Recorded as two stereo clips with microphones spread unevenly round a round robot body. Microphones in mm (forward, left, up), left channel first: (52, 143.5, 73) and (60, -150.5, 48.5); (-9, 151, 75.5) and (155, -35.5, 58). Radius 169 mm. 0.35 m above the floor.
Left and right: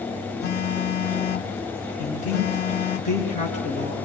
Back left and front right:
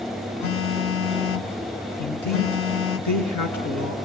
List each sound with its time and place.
0.4 s a phone buzzing: 145° left, 0.9 m
2.0 s a man speaking: 160° left, 5 m